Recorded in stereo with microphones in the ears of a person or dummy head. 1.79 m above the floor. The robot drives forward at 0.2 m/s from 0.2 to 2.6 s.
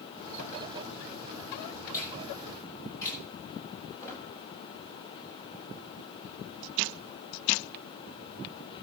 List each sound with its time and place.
1.9 s a finger snap: 20° left (ahead or behind), 8.5 m
4.0 s a squeak: 20° left (ahead or behind), 7 m